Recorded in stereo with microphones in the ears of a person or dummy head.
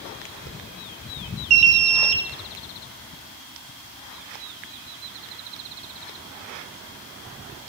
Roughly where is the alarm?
Right.